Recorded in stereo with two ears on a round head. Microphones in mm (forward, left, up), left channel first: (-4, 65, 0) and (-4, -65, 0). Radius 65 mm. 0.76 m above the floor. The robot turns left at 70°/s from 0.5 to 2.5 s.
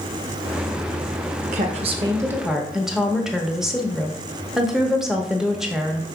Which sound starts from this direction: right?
A woman speaking, at 1.5 s.